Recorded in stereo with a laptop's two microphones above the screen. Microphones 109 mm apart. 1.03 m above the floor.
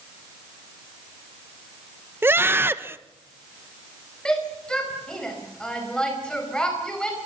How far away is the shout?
About 4.5 m.